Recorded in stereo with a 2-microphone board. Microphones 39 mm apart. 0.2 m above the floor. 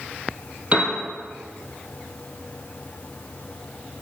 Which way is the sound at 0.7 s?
30° right (ahead or behind).